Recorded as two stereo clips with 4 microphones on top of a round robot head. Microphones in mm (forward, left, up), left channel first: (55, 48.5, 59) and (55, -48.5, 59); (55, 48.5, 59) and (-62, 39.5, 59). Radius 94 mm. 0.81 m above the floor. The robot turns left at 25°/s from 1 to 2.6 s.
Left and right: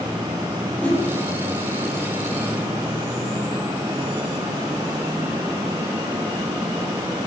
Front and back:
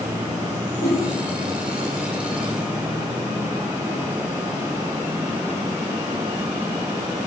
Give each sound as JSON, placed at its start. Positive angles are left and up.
{"t": 0.8, "sound": "a whoosh", "azimuth_deg": 15, "distance_m": 1.1}